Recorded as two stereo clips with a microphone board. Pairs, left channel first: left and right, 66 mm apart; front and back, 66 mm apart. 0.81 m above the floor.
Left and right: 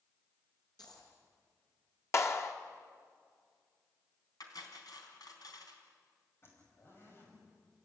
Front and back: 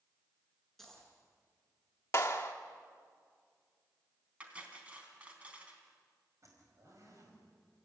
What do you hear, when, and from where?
0.8 s a dropped coin: 85° left, 6 m
2.1 s a clap: 45° left, 1.9 m
4.4 s cutlery clinking: 110° left, 3.5 m
6.4 s a zipper: 140° left, 5.5 m